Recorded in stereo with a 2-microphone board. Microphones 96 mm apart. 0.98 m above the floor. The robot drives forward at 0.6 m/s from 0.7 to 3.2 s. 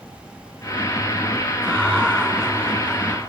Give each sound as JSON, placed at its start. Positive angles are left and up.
{"t": 1.6, "sound": "laughter", "side_deg": 10, "distance_m": 8.0}